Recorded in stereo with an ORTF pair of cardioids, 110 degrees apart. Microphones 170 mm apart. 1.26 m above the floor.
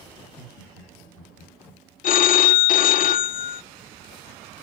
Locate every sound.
0.2 s laughter: 60° left, 4 m
2.0 s a phone ringing: 50° left, 0.6 m